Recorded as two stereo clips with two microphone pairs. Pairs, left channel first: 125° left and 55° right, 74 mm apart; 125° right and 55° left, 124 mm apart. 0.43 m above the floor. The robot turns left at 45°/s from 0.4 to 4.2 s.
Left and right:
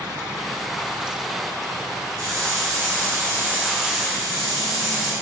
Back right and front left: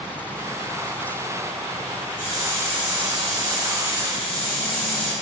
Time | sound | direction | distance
2.2 | a hiss | 55° right | 1.6 m